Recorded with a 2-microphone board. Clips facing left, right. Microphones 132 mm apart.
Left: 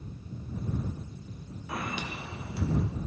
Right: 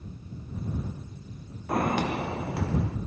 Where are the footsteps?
50° right (ahead or behind); by 3.0 s 80° right.